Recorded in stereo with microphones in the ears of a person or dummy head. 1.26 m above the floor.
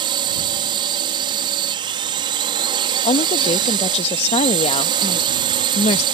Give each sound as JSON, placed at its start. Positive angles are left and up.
{"t": 0.0, "sound": "a drone", "side_deg": -30}
{"t": 3.0, "sound": "a woman speaking", "side_deg": 30}